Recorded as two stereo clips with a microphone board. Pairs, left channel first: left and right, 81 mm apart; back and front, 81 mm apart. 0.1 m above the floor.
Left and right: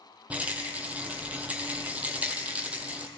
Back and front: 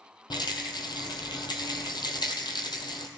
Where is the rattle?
160° right, 1.1 m.